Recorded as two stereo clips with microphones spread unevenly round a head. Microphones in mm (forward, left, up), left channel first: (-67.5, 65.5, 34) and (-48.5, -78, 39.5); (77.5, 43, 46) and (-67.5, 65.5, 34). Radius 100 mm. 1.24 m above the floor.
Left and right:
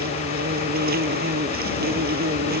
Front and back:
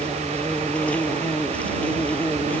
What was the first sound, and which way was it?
An insect, 90° right.